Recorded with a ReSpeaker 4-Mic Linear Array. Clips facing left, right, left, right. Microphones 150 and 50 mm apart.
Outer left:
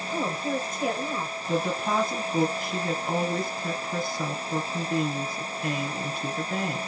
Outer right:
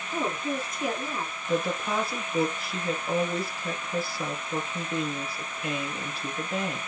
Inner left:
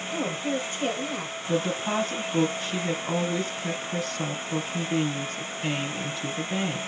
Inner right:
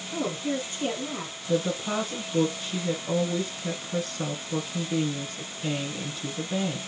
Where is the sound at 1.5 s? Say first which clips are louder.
Outer left 1 dB, even; 50° left (ahead or behind), 2.5 m.